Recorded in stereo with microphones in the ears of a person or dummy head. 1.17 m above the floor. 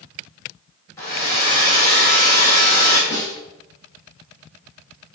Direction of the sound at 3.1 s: 15° left (ahead or behind).